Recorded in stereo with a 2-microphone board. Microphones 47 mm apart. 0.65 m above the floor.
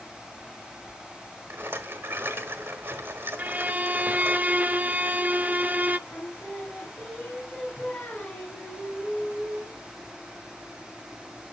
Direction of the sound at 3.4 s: 35° right (ahead or behind).